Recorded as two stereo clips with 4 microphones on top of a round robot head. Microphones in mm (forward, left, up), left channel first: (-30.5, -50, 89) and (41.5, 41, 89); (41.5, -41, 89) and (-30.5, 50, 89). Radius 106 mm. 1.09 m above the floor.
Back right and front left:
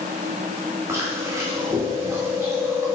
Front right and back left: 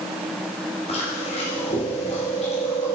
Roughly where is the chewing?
Ahead.